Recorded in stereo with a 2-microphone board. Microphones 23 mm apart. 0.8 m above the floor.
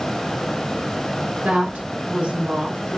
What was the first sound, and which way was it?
A woman speaking, 80° right.